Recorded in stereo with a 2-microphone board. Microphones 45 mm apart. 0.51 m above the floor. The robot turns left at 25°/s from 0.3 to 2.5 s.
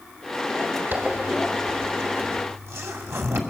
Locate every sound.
0.9 s a zipper: 50° right (ahead or behind), 2.5 m; by 3.4 s 70° right (ahead or behind), 2.5 m